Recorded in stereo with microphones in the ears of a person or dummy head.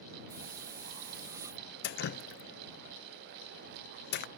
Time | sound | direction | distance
0.3 | a hiss | 15° right (ahead or behind) | ?
1.8 | dripping | 55° left (ahead or behind) | ?